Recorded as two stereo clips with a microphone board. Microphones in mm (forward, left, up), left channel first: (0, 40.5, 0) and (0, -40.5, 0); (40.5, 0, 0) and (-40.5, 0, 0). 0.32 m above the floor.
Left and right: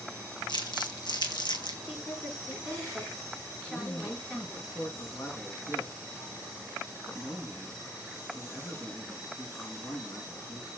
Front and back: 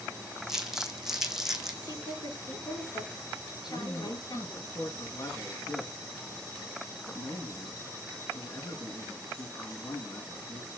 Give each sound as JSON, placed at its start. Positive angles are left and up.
{"t": 0.5, "sound": "crumpling", "azimuth_deg": 95, "distance_m": 2.5}
{"t": 1.8, "sound": "a woman speaking", "azimuth_deg": 15, "distance_m": 4.5}
{"t": 3.7, "sound": "a man speaking", "azimuth_deg": 35, "distance_m": 3.5}